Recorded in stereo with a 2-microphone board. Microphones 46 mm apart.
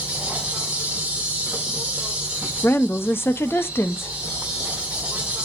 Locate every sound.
0.0 s an insect: 20° right (ahead or behind), 2 m
2.6 s a woman speaking: 60° left (ahead or behind), 0.8 m